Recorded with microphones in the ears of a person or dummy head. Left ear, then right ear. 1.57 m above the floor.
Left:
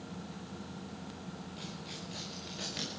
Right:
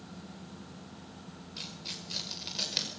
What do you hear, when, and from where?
1.6 s tearing paper: 45° right (ahead or behind), 5 m